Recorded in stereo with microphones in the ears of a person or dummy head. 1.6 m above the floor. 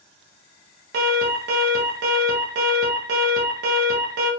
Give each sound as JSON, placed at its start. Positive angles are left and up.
{"t": 0.9, "sound": "an alarm", "side_deg": -55, "distance_m": 3.0}